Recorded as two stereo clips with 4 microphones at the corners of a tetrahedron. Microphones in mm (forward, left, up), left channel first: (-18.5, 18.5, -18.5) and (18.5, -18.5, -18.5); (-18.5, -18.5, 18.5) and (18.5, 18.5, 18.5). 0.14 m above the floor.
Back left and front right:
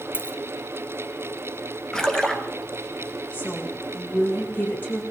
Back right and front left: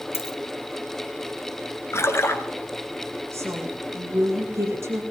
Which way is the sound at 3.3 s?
80° left.